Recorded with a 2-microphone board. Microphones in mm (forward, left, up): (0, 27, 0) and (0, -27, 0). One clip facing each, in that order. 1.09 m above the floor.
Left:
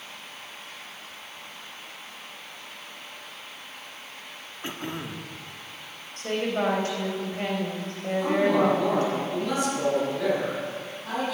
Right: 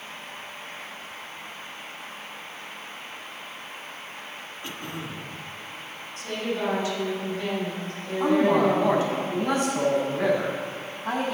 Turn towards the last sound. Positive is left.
turn(degrees=-40)  # may be behind; listen again after turning